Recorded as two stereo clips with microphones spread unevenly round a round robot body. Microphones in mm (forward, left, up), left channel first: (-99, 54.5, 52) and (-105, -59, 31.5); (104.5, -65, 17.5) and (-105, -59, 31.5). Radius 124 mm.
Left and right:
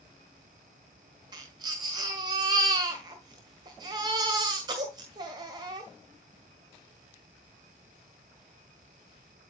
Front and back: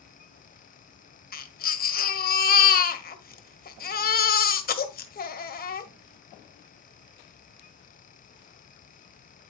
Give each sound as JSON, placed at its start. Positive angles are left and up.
{"t": 1.3, "sound": "a baby crying", "azimuth_deg": -40, "distance_m": 1.7}